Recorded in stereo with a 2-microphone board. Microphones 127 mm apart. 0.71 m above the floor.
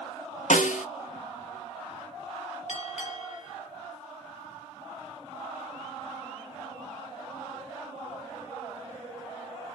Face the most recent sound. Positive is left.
turn(degrees=70)  # may be behind; listen again after turning